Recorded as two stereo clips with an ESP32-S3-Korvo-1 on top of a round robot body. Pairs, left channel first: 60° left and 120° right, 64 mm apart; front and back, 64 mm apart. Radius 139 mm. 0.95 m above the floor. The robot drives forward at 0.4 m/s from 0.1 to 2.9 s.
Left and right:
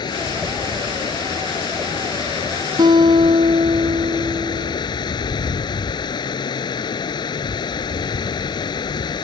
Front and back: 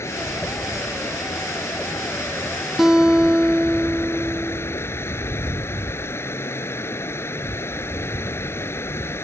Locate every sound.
0.0 s running water: 50° left; by 9.2 s 55° left
2.8 s a guitar: 95° right; by 4.8 s 100° right